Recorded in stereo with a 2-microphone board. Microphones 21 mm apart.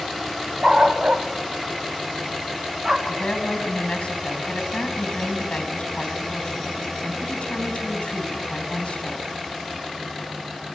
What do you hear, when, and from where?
0.6 s a dog barking: 50° right (ahead or behind), 1.7 m; by 3.0 s 30° right (ahead or behind), 2.5 m
3.1 s a woman speaking: 80° left, 4 m